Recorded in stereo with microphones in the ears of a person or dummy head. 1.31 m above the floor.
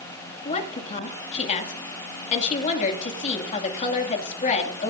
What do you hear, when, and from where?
0.5 s a woman speaking: 40° left (ahead or behind), 2 m